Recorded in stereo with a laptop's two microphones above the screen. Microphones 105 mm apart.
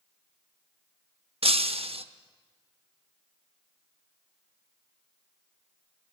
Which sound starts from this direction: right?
Breaking glass, at 1.4 s.